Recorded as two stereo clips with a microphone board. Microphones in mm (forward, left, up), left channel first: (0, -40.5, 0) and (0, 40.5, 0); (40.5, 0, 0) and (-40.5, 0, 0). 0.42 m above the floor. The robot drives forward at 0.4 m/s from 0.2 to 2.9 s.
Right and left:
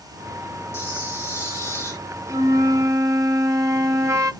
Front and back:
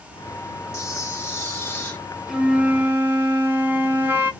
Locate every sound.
0.7 s a camera shutter: 40° right, 2.0 m; by 2.0 s 55° right, 1.7 m
2.3 s a flute: 100° left, 0.6 m; by 4.3 s 125° left, 0.7 m